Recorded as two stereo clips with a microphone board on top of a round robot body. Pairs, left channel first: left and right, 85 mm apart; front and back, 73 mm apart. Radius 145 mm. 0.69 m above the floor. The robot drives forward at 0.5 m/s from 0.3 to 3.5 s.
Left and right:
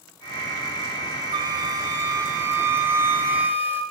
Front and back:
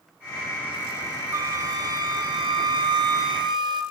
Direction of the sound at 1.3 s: 130° right.